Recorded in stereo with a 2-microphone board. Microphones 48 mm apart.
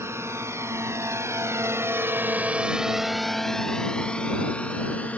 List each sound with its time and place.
0.0 s a drone: 65° right (ahead or behind); by 5.2 s 30° left (ahead or behind)